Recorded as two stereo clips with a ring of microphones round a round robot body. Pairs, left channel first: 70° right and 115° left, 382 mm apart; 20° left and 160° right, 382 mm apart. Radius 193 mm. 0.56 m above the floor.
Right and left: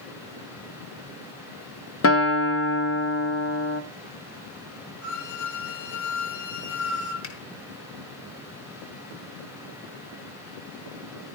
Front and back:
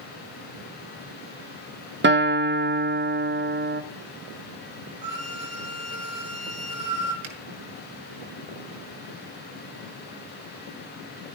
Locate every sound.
2.0 s a guitar: 105° right, 1.6 m
5.0 s a violin: 95° right, 7.5 m
7.2 s a finger snap: 115° right, 5.5 m